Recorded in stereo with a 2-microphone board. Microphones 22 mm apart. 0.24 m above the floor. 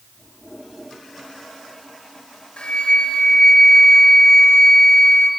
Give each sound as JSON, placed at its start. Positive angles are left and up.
{"t": 2.6, "sound": "a flute", "side_deg": 60, "distance_m": 4.0}